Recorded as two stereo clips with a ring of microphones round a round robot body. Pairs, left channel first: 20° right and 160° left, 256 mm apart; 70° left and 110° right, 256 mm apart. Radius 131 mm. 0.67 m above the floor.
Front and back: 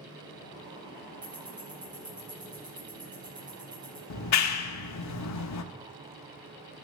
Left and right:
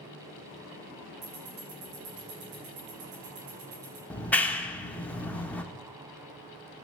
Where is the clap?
15° right, 1.4 m.